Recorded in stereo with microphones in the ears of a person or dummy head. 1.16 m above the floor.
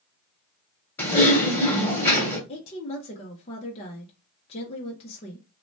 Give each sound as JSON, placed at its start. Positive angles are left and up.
{"t": 1.0, "sound": "typing on a keyboard", "side_deg": 15, "distance_m": 1.7}
{"t": 2.5, "sound": "a woman speaking", "side_deg": 30, "distance_m": 0.6}